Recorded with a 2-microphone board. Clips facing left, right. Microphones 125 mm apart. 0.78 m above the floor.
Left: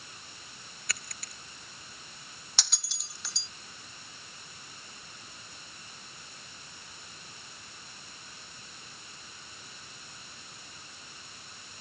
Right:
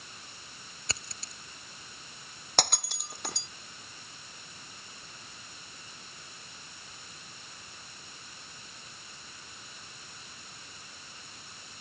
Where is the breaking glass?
60° right (ahead or behind).